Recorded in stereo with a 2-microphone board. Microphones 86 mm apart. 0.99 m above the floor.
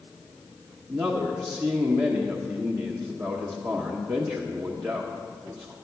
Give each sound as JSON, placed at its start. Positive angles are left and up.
{"t": 0.9, "sound": "a man speaking", "side_deg": -40, "distance_m": 1.0}